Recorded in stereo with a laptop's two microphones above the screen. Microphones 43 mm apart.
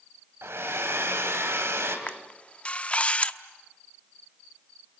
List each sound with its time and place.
0.4 s a hair dryer: 80° right, 3 m
2.1 s a camera shutter: 30° left (ahead or behind), 1.0 m